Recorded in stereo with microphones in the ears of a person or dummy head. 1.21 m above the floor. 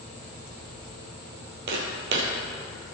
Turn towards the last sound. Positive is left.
turn(degrees=-50)  # may be behind; listen again after turning